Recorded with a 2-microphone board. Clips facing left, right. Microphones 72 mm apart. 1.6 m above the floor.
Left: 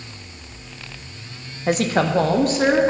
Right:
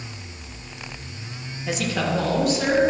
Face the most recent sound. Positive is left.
turn(degrees=45)  # may be behind; listen again after turning